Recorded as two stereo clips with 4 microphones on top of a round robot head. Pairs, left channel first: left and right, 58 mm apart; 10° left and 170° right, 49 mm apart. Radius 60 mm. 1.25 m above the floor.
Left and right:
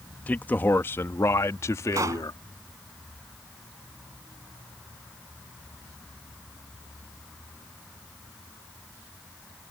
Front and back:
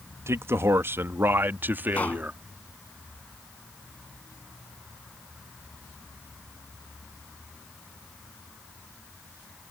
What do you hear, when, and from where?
0.3 s a man speaking: 160° left; by 2.4 s 135° left
1.9 s a pop: 55° right